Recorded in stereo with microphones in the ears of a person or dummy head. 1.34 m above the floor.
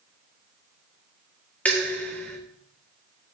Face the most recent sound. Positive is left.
turn(degrees=5)  # may be behind; listen again after turning